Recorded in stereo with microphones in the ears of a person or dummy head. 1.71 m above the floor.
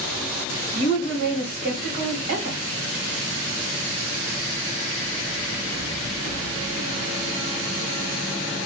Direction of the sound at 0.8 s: 50° right (ahead or behind).